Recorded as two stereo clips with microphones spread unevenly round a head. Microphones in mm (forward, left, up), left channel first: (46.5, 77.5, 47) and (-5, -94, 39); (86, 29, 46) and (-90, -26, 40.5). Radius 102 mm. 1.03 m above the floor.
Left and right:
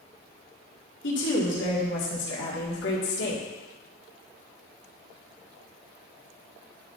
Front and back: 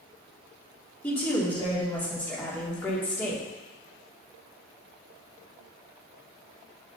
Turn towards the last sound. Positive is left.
turn(degrees=100)